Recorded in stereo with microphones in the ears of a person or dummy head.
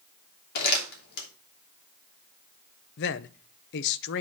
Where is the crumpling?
60° left (ahead or behind), 2.5 m.